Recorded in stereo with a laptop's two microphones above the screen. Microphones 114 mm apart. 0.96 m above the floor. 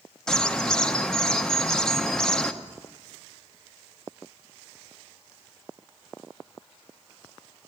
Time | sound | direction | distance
0.3 | a bird | 5° left (ahead or behind) | 0.8 m